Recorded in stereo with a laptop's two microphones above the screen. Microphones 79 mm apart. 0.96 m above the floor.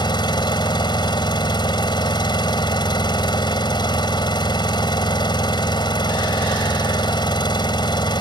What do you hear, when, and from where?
0.0 s an engine running: 85° left